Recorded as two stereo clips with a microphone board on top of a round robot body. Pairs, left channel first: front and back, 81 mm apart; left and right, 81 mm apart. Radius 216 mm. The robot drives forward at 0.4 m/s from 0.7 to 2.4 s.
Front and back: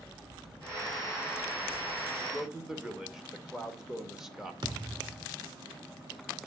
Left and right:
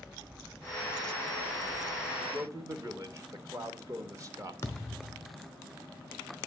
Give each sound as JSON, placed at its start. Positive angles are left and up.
{"t": 2.2, "sound": "a man speaking", "azimuth_deg": -90, "distance_m": 1.3}
{"t": 4.6, "sound": "a thud", "azimuth_deg": 145, "distance_m": 0.9}